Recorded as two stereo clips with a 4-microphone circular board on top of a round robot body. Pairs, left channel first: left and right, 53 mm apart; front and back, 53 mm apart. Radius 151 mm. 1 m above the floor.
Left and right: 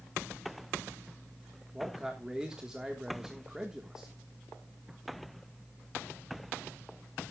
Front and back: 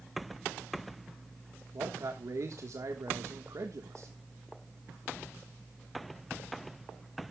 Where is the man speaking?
165° right, 1.6 m.